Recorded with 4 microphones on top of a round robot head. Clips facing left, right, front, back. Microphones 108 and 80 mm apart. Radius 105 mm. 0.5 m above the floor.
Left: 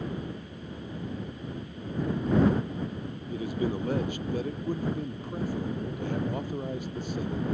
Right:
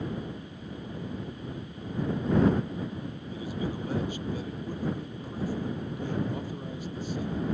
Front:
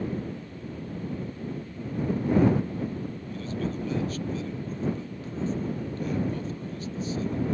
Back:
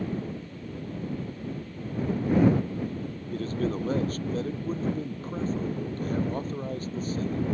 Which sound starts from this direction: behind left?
A man speaking, at 3.3 s.